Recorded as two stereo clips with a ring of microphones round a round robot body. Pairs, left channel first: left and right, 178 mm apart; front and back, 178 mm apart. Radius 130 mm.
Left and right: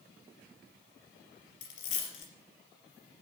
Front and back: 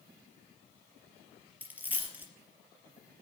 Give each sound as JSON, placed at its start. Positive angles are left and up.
{"t": 1.6, "sound": "a dropped coin", "azimuth_deg": 100, "distance_m": 4.0}